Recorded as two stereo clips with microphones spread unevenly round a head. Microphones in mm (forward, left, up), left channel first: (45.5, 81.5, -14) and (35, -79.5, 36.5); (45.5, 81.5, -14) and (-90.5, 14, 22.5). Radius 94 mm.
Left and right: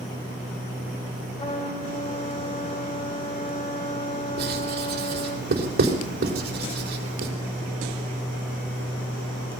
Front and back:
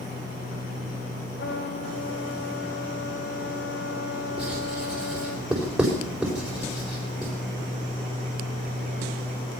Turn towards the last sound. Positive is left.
turn(degrees=-65)